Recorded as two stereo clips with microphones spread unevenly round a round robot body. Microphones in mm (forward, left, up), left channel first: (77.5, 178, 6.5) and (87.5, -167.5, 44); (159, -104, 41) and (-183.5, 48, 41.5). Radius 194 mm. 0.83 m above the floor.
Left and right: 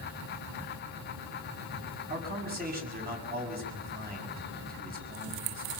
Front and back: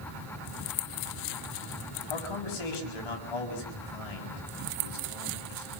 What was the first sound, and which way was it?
A man speaking, 25° right.